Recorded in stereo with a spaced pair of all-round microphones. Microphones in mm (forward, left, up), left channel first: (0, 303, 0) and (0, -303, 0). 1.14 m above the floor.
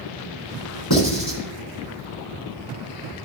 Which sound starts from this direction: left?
Writing, at 0.9 s.